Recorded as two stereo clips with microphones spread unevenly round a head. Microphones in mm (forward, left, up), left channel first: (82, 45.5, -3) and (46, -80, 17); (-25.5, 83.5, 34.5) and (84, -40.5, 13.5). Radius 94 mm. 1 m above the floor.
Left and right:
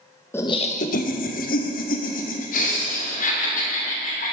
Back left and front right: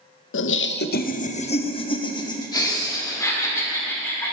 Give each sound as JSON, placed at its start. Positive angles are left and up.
{"t": 0.3, "sound": "laughter", "azimuth_deg": 150, "distance_m": 0.6}